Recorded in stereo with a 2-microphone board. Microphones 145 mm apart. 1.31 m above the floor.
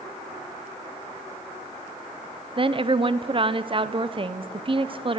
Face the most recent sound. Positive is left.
turn(degrees=-35)  # may be behind; listen again after turning